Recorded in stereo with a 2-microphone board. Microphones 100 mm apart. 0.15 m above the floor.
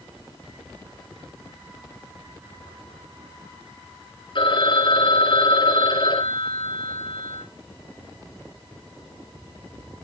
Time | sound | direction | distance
4.3 | a phone ringing | 50° left (ahead or behind) | 2.5 m